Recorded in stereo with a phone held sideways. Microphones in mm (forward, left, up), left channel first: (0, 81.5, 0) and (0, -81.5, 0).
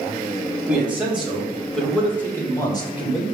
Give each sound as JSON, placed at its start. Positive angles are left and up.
{"t": 0.7, "sound": "a man speaking", "side_deg": -10, "distance_m": 2.0}